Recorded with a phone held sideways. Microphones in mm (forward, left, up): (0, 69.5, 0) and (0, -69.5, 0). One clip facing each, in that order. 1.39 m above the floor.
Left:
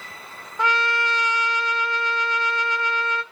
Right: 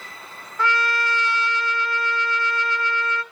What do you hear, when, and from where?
0.6 s a trumpet: 20° left (ahead or behind), 2 m